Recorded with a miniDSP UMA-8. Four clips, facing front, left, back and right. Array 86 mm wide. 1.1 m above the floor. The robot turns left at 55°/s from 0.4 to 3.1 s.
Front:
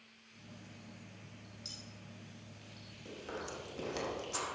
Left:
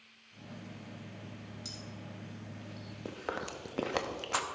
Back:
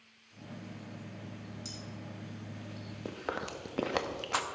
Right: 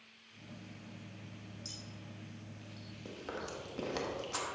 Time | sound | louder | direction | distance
1.6 | cutlery clinking | left 4 dB, back 9 dB | 110° left | 4 m
3.0 | chewing | left 4 dB, back 6 dB | 145° left | 0.8 m